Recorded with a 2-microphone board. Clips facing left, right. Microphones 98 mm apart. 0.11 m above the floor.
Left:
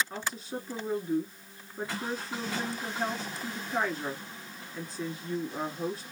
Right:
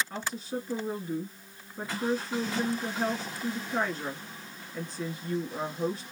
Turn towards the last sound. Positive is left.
turn(degrees=0)  # may be behind; listen again after turning